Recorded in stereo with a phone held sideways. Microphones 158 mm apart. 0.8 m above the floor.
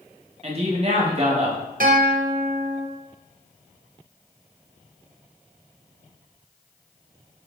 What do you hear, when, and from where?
0.4 s a man speaking: 40° right (ahead or behind), 1.1 m
1.8 s a guitar: 60° right (ahead or behind), 0.8 m